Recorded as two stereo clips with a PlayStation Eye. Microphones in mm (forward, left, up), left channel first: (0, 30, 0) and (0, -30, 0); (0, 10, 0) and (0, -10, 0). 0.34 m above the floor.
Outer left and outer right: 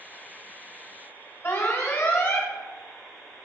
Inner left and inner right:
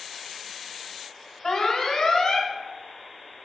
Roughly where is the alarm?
Left.